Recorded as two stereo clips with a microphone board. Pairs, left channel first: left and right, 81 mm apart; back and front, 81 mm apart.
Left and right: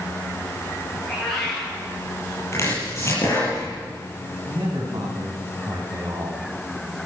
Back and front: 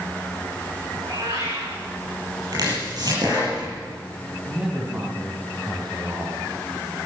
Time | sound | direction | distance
1.0 | a cat meowing | 5° left | 9 m
2.5 | chopping | 35° left | 7 m
4.5 | a man speaking | 65° right | 3.5 m